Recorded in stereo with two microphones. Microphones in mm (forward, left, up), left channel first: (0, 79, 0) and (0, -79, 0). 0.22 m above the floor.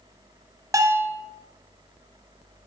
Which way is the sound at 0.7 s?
20° right (ahead or behind).